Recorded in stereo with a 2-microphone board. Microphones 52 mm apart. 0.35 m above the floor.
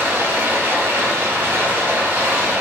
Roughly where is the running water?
Right.